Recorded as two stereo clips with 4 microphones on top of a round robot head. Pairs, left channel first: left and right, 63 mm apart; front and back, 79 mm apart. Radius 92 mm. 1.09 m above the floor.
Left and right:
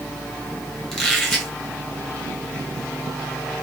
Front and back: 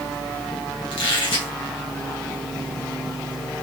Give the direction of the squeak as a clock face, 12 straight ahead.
12 o'clock.